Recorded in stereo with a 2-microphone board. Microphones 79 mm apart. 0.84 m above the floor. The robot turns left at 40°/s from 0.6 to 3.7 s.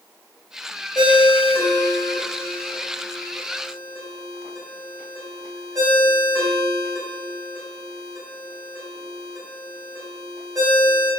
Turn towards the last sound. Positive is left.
turn(degrees=-50)  # may be behind; listen again after turning